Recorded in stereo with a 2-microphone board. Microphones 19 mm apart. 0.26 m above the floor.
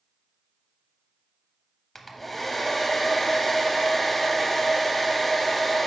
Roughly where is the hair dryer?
Centre.